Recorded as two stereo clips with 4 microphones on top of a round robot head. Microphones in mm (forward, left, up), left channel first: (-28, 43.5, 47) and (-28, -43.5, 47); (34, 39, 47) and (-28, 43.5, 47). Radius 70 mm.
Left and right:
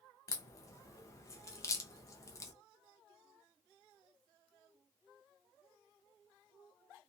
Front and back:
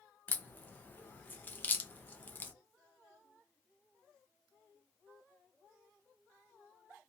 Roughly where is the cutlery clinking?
No cutlery clinking in this recording.